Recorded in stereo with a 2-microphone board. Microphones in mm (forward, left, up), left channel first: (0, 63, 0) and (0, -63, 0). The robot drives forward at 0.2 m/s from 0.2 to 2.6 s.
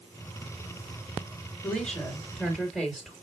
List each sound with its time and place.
1.6 s a woman speaking: 10° left (ahead or behind), 3 m